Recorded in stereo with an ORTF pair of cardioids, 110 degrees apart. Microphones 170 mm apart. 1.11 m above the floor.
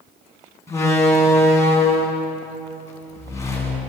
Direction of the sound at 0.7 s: 15° left.